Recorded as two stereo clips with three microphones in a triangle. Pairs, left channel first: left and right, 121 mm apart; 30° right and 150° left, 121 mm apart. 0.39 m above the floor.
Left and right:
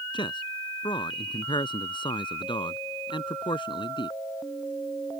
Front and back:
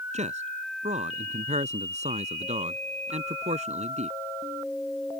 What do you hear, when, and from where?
0.1 s a man speaking: 135° left